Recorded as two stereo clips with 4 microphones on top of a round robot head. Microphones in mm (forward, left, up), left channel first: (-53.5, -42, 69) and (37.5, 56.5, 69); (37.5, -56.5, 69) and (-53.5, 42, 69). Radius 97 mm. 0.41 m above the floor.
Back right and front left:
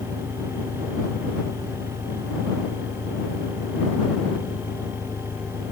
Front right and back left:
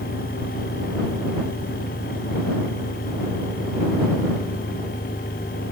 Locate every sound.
0.0 s an engine running: 120° right